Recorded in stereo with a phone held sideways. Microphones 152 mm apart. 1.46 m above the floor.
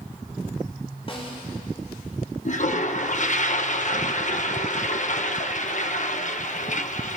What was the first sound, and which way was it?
A snare drum, 35° left (ahead or behind).